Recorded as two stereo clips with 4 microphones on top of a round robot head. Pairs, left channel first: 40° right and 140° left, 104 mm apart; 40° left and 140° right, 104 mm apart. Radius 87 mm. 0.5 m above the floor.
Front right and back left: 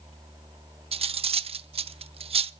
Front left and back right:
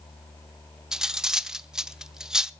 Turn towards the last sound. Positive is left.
turn(degrees=135)